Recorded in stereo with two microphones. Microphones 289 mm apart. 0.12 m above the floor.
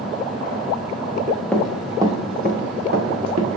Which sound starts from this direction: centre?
Running footsteps, at 1.5 s.